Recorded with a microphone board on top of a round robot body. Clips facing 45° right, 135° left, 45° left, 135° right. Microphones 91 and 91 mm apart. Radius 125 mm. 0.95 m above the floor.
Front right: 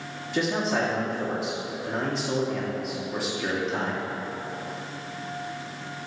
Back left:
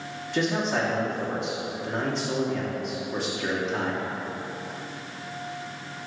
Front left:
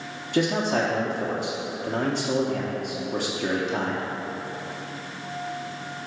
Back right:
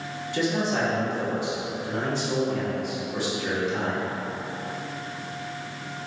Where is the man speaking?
40° left, 1.3 m.